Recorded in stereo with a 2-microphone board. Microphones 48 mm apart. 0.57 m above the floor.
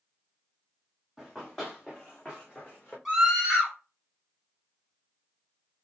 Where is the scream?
5° right (ahead or behind), 3 m.